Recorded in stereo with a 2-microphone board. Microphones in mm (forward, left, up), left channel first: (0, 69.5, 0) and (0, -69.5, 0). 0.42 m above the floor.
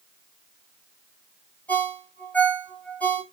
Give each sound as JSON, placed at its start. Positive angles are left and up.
{"t": 1.7, "sound": "a ringtone", "side_deg": 10, "distance_m": 1.7}